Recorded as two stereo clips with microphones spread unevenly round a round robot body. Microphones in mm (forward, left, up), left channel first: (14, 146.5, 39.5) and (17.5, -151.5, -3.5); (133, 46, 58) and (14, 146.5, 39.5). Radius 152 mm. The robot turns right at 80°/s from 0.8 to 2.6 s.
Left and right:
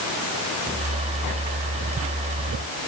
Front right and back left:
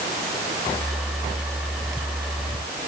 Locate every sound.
Only background noise.